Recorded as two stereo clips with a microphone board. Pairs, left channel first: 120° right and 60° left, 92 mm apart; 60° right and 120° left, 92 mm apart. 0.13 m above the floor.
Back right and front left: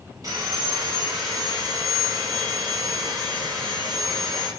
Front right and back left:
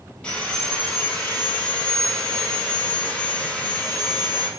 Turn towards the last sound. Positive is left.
turn(degrees=15)